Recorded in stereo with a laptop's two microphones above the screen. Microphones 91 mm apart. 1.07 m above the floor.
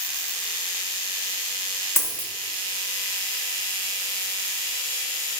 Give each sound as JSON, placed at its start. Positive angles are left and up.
{"t": 2.0, "sound": "a dropped coin", "side_deg": 30, "distance_m": 0.6}